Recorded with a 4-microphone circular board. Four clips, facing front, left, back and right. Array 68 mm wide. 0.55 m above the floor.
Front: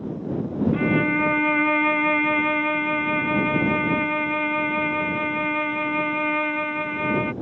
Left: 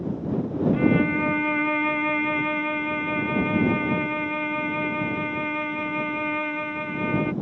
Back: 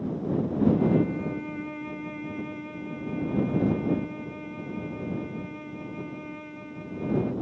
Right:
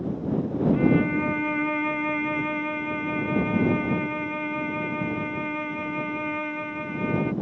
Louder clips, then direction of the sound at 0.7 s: Even, front 3 dB; 10° left.